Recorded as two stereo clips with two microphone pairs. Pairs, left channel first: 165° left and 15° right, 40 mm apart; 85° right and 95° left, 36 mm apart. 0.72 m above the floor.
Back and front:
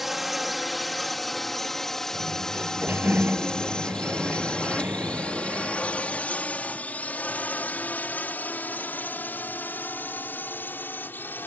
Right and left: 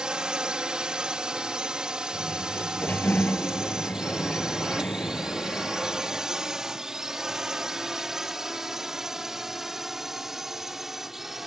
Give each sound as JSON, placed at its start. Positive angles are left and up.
{"t": 0.0, "sound": "a drone", "azimuth_deg": 65}
{"t": 2.1, "sound": "a sliding door", "azimuth_deg": -55}